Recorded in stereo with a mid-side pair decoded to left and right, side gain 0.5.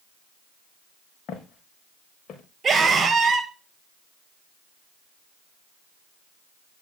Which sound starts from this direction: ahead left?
Footsteps, at 1.3 s.